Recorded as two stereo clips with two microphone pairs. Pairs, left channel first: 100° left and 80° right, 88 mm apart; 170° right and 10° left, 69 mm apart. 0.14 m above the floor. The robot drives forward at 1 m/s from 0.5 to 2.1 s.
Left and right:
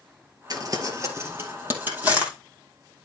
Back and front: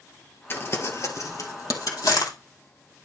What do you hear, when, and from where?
0.5 s crumpling: 115° right, 1.6 m; by 2.3 s 150° right, 2.5 m